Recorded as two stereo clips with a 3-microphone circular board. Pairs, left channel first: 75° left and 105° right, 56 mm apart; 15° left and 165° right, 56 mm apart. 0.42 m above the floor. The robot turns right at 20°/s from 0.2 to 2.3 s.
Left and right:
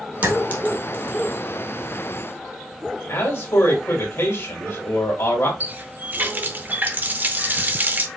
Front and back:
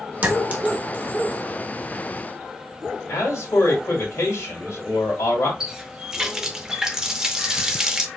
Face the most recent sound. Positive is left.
turn(degrees=-95)